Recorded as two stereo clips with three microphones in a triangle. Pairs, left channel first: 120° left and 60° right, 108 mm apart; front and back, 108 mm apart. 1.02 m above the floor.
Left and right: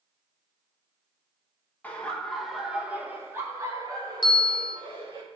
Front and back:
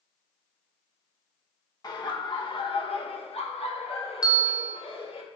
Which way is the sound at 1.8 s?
45° left.